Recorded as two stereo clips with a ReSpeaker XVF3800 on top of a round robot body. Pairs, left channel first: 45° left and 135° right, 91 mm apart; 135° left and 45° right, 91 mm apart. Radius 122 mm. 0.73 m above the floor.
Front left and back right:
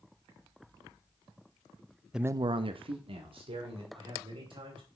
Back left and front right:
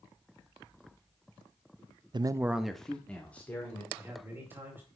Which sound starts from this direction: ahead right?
A man speaking, at 2.1 s.